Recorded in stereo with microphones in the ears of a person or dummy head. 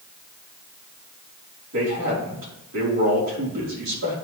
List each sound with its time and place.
1.7 s a man speaking: 60° right (ahead or behind), 4 m